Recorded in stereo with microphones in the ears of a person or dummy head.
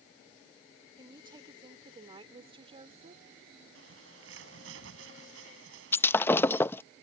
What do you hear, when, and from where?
1.0 s a woman speaking: 25° right (ahead or behind); by 3.2 s 40° right (ahead or behind)
3.8 s a bird: 85° right
5.9 s breaking glass: 15° left (ahead or behind)